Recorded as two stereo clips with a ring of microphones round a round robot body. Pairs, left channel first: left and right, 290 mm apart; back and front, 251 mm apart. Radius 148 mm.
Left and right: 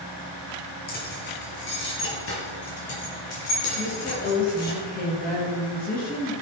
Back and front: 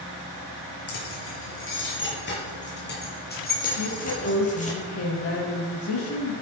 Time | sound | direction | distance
0.9 | keys jangling | 150° left | 5 m
3.8 | a woman speaking | 150° left | 7 m